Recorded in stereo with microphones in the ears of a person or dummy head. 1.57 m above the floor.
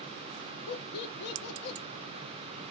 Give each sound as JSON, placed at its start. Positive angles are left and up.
{"t": 0.7, "sound": "laughter", "side_deg": 60, "distance_m": 0.7}